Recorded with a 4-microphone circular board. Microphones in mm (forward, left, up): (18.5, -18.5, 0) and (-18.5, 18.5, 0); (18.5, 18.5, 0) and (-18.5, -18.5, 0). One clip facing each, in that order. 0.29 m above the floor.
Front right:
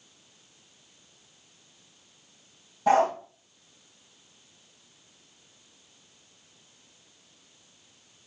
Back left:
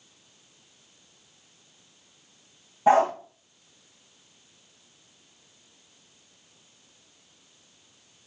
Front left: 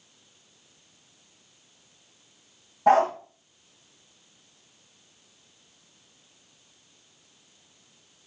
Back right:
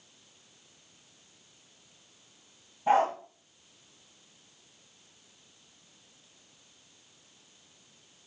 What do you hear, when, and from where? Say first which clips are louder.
2.9 s a dog barking: back left 2 dB, front left 5 dB; 65° left, 4.5 m